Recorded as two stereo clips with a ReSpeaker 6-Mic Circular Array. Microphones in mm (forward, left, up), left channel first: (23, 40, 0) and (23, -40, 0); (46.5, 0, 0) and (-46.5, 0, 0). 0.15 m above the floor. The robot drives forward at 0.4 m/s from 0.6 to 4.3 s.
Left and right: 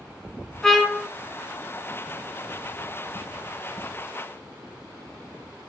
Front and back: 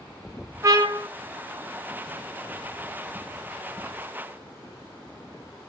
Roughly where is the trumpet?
Behind.